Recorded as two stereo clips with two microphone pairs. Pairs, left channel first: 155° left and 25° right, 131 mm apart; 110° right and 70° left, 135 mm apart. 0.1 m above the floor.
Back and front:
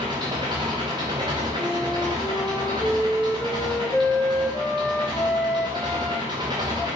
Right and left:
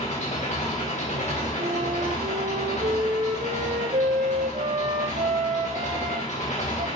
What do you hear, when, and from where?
0.0 s an engine running: 80° right, 4 m
1.6 s a flute: 80° left, 0.9 m